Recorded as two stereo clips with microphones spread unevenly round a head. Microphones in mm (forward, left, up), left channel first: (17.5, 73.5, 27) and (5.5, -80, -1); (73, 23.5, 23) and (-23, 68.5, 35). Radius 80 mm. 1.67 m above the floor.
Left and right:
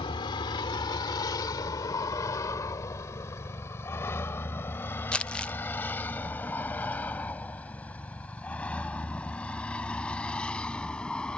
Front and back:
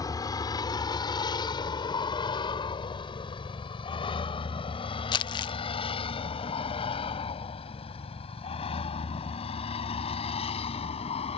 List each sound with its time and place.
0.0 s a vehicle: 30° left; by 11.4 s 5° left
5.1 s crumpling: 10° left